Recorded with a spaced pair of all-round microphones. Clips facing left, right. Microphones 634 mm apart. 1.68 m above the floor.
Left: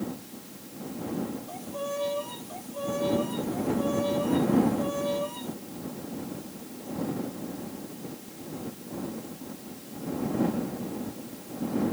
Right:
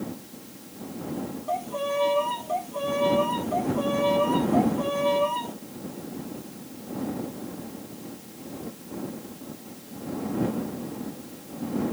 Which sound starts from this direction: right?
A violin, at 1.5 s.